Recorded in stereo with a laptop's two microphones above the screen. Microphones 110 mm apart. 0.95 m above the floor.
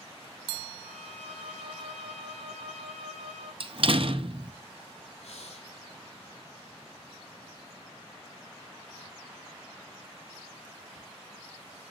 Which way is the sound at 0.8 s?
75° left (ahead or behind).